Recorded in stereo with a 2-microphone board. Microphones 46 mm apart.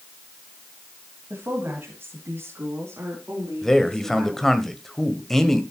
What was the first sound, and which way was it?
A woman speaking, 50° right (ahead or behind).